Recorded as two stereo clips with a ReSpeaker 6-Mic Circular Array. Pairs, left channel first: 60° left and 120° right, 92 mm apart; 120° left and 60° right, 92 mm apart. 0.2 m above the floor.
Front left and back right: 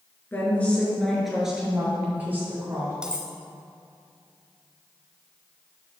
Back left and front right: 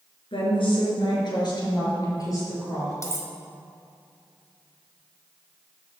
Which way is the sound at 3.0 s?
165° left.